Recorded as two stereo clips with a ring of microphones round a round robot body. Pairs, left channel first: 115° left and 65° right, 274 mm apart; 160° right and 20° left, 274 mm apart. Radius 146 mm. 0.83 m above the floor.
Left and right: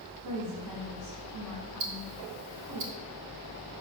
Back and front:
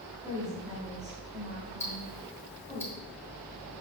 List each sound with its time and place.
0.2 s a woman speaking: 55° right, 3.5 m
1.8 s ticking: 75° right, 1.2 m